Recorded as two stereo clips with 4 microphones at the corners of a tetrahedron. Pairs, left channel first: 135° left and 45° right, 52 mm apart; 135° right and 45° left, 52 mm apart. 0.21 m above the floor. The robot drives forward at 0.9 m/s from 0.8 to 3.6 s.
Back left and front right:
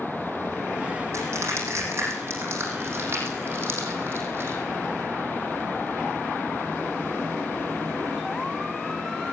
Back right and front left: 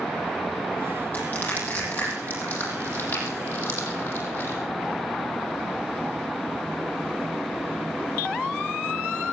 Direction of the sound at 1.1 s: 75° right.